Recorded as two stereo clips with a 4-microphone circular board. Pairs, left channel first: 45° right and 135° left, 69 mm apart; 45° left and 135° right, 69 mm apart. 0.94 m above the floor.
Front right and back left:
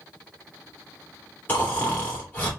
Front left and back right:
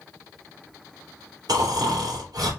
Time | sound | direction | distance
1.5 | snoring | 105° right | 2.5 m